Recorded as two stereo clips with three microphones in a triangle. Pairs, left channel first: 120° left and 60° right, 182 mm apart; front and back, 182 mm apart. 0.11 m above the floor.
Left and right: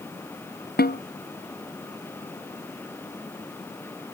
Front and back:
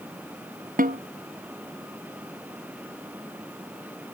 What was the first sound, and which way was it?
A snare drum, 145° left.